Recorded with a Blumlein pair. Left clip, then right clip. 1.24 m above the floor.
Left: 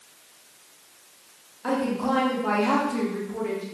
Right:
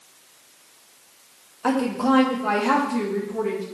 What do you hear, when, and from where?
1.6 s a woman speaking: 25° right, 2.0 m; by 3.6 s 5° left, 2 m